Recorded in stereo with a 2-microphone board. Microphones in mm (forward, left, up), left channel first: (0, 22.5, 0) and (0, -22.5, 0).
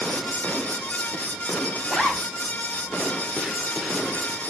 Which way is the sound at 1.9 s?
5° left (ahead or behind).